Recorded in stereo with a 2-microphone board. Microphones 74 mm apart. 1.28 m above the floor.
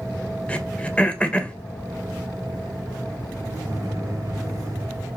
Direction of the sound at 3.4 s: 50° right (ahead or behind).